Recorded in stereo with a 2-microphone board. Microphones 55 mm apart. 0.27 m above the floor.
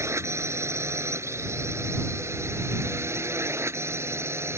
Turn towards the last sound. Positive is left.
turn(degrees=-60)  # may be behind; listen again after turning